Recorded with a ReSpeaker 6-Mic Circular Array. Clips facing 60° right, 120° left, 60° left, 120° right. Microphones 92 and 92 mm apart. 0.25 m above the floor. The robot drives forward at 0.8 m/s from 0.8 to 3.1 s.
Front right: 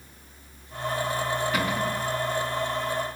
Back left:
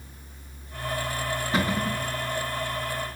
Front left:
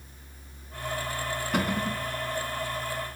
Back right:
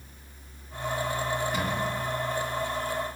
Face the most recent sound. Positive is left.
turn(degrees=95)